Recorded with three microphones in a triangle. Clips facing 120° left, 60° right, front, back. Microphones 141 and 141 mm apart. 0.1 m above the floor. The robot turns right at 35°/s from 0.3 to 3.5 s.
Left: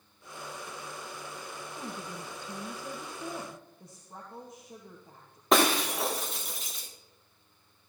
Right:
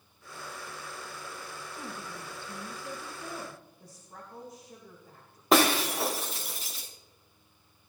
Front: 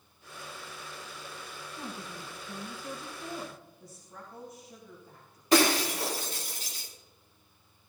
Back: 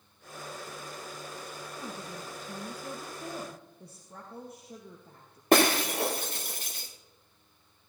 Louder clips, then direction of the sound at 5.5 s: Right 1 dB, back 1 dB; 150° right.